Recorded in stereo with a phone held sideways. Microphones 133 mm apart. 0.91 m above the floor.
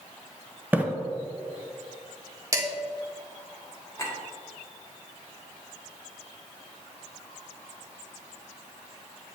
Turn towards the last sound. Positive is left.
turn(degrees=25)  # may be behind; listen again after turning